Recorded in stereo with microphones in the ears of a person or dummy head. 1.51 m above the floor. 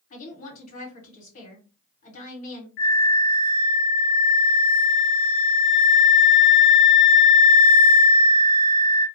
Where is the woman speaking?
40° left (ahead or behind), 1.3 m.